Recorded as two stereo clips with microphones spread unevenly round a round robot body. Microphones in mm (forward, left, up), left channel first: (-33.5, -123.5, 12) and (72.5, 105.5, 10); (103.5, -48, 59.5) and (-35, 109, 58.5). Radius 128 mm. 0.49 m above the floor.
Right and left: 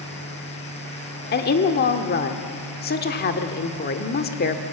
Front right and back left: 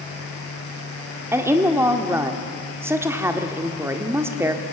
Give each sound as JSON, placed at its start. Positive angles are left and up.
{"t": 1.3, "sound": "a woman speaking", "azimuth_deg": -155, "distance_m": 1.3}